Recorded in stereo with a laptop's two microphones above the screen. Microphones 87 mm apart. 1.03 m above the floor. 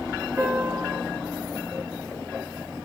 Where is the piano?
30° right (ahead or behind), 0.6 m.